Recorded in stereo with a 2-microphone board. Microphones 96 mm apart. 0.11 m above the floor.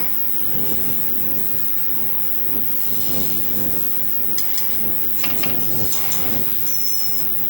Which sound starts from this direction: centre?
An insect, at 0.0 s.